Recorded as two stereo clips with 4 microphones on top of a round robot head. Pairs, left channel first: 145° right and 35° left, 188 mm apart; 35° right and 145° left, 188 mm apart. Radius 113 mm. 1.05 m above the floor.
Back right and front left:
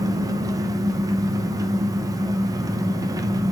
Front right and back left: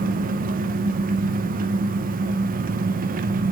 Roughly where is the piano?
No piano in this recording.